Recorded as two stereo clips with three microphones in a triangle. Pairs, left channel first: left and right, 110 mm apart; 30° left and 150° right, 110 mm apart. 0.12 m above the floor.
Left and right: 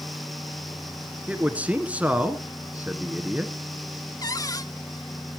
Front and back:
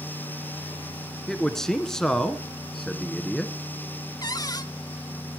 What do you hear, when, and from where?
1.3 s a man speaking: 45° right, 1.4 m
4.2 s a cupboard door: 55° left, 0.6 m